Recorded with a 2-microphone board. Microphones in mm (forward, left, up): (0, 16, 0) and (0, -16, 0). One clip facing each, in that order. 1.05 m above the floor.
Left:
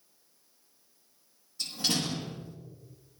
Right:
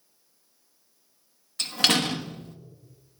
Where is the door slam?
65° right (ahead or behind), 1.3 m.